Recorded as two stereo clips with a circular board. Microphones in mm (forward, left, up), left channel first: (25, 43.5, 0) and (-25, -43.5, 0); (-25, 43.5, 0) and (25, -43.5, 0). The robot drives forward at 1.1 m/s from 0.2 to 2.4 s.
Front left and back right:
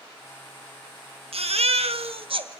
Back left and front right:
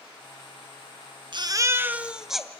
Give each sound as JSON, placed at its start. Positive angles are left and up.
{"t": 1.3, "sound": "a baby crying", "azimuth_deg": -100, "distance_m": 0.8}